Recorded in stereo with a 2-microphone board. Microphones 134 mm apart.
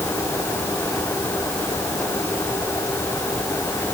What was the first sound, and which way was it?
Only background noise.